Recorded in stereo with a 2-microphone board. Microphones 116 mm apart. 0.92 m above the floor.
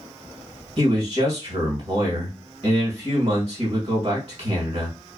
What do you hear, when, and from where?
0.8 s a man speaking: 60° right (ahead or behind), 1.3 m